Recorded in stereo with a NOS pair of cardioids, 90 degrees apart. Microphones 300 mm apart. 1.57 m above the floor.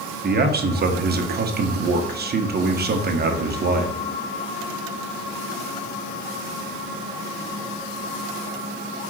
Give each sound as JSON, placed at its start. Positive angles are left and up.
{"t": 0.2, "sound": "a man speaking", "azimuth_deg": -35, "distance_m": 1.2}